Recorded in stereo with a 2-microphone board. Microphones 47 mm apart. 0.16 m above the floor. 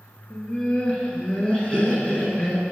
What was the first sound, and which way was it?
Laughter, 20° left (ahead or behind).